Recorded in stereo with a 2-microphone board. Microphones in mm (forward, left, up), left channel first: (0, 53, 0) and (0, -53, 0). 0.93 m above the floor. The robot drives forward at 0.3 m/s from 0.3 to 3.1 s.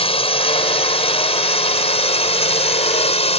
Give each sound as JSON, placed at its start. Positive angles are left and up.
{"t": 0.0, "sound": "a drone", "side_deg": 60}